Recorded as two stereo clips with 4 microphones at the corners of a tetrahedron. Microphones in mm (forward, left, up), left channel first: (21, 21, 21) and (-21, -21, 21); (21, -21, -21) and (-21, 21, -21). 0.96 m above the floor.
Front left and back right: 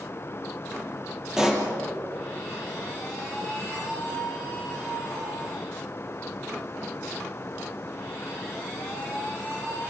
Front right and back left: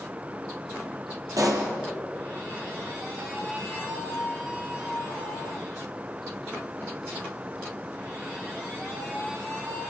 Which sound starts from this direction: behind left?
A pop, at 1.4 s.